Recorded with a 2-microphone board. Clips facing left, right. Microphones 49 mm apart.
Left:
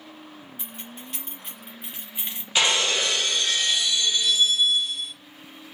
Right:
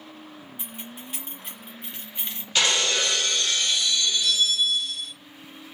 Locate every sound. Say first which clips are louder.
0.6 s keys jangling: right 2 dB; 15° right (ahead or behind), 1.5 m; by 2.5 s 15° left (ahead or behind), 0.9 m
2.5 s breaking glass: left 1 dB; 20° left (ahead or behind), 0.6 m